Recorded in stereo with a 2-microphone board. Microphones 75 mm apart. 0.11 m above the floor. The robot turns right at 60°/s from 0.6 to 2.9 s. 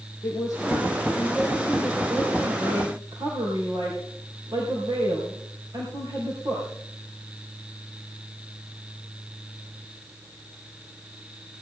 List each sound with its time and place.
0.2 s a woman speaking: 120° left, 4 m; by 6.7 s 100° right, 4 m